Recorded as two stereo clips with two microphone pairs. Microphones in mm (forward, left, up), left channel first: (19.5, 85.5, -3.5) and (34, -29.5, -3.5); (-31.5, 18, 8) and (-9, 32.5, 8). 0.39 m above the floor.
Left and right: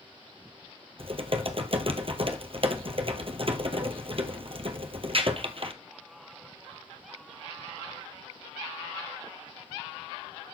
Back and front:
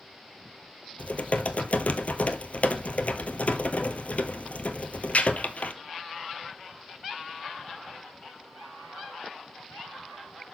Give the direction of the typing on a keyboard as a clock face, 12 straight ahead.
4 o'clock.